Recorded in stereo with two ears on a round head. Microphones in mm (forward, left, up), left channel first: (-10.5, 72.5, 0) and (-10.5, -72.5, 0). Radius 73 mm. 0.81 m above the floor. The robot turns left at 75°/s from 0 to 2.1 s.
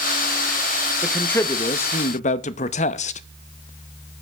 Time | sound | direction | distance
1.0 | a man speaking | 175° right | 0.6 m